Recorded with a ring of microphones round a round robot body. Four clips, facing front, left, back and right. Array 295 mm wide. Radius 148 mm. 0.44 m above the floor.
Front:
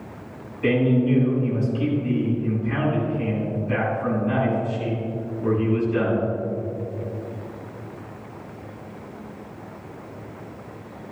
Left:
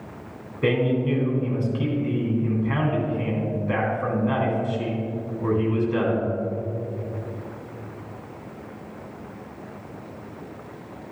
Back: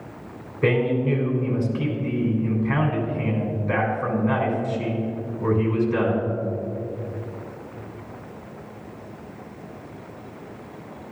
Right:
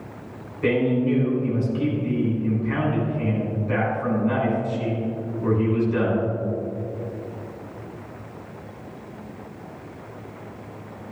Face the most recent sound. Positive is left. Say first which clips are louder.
# right 1 dB, front 2 dB
turn(degrees=150)